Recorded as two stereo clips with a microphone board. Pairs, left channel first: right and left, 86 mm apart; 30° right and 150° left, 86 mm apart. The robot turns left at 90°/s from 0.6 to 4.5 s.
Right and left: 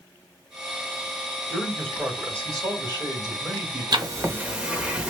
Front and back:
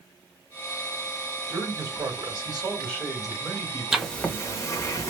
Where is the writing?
65° left, 0.7 m; by 5.1 s 15° left, 0.7 m.